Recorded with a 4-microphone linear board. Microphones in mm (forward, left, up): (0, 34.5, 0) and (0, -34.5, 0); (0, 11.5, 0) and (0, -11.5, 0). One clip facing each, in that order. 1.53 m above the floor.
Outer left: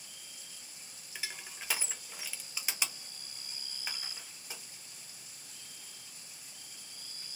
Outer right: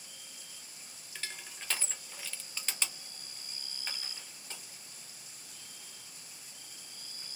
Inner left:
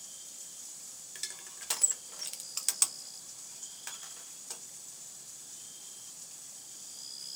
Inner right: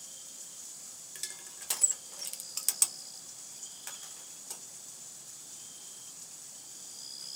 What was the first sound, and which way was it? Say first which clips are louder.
Crushing: outer left 1 dB, inner left 1 dB; 10° left (ahead or behind).